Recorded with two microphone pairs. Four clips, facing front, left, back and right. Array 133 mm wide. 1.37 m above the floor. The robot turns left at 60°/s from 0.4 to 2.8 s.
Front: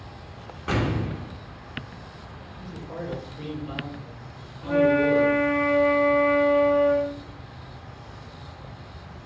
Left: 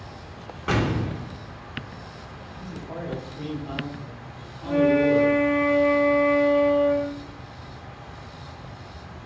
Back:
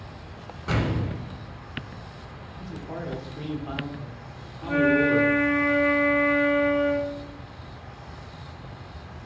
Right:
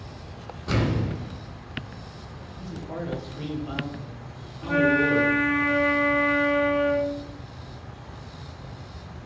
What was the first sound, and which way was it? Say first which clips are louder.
An explosion: left 1 dB, front 1 dB; 70° left.